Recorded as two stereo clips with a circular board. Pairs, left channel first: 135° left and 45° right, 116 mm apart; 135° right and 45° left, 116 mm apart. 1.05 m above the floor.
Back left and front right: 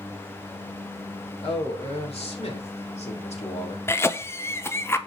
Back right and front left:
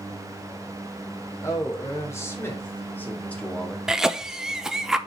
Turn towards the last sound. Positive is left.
turn(degrees=125)